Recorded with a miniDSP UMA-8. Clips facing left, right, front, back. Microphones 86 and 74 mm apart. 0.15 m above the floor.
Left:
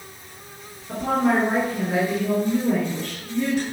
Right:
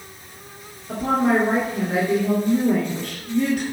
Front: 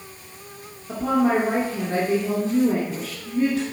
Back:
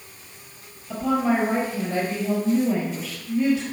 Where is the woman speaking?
10° right, 1.7 m.